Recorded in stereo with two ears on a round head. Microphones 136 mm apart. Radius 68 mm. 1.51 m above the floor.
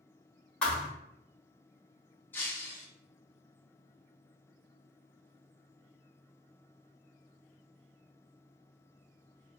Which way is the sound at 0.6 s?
5° left (ahead or behind).